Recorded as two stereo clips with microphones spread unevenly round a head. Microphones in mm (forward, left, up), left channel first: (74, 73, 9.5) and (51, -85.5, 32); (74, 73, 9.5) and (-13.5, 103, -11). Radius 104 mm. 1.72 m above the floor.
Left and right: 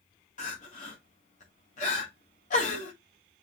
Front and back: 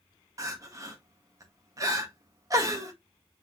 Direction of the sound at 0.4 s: 115° left.